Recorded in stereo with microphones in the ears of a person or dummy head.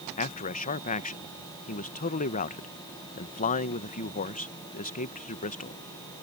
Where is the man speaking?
40° left (ahead or behind).